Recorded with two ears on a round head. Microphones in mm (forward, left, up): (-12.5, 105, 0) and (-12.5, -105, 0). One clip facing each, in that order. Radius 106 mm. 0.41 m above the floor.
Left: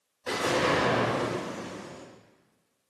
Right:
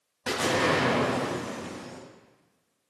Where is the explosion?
65° right (ahead or behind), 3 m.